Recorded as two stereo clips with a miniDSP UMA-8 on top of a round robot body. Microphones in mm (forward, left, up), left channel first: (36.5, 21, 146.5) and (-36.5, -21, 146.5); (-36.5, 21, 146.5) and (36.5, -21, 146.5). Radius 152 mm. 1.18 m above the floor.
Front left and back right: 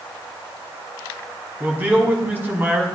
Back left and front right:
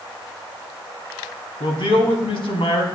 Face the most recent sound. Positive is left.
turn(degrees=140)